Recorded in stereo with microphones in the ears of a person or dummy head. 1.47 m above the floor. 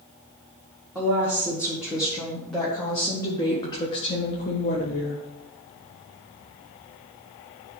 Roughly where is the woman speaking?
Centre.